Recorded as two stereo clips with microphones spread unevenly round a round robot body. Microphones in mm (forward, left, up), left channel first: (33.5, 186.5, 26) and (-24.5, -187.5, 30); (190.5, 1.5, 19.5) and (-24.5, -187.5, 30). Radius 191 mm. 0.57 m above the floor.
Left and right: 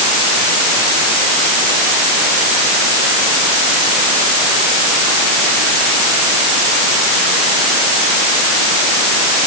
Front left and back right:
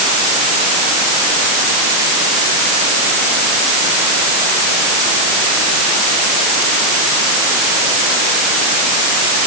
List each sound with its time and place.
Only background noise.